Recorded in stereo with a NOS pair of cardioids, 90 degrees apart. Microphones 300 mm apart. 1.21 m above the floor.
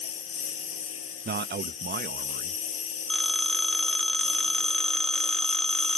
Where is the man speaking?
35° right.